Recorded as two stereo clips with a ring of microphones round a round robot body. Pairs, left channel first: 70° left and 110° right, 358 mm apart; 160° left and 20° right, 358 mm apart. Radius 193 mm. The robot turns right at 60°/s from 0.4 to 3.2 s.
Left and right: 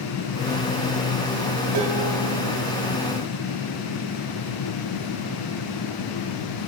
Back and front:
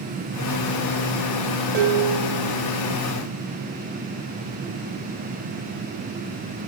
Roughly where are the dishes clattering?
Right.